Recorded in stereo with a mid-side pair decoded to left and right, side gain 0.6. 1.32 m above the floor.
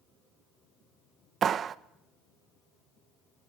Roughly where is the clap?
Ahead right.